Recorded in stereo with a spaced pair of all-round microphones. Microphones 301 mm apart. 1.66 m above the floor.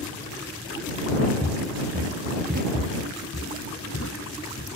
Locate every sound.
1.4 s footsteps: centre (ahead or behind); by 2.6 s 30° right (ahead or behind)
2.7 s footsteps: 50° left (ahead or behind); by 4.7 s 60° left (ahead or behind)